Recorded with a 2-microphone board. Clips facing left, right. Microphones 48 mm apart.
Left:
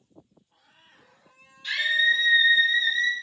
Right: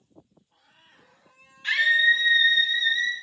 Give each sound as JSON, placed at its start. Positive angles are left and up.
{"t": 1.6, "sound": "a scream", "side_deg": -45, "distance_m": 1.0}